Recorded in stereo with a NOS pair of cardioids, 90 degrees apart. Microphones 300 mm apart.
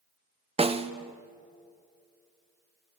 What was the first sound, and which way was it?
A snare drum, 20° right.